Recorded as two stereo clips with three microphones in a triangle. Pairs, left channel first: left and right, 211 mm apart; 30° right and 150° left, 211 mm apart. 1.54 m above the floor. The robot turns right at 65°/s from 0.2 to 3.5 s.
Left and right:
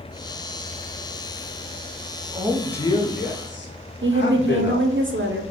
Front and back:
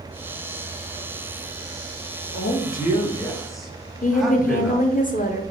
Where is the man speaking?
15° right, 0.9 m; by 4.9 s 60° left, 0.9 m.